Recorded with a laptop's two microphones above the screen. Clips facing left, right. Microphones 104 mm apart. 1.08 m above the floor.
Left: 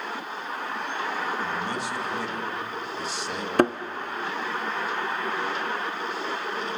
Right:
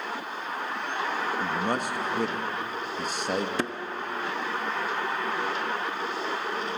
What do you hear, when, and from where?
1.4 s a man speaking: 45° right (ahead or behind), 1.7 m
3.6 s a thud: 50° left (ahead or behind), 0.6 m